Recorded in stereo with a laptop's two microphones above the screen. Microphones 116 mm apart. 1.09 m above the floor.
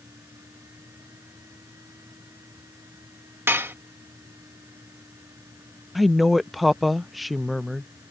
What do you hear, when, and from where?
0.0 s a fan: 25° right (ahead or behind)
3.5 s dishes clattering: 20° right (ahead or behind)
6.0 s a woman speaking: centre (ahead or behind)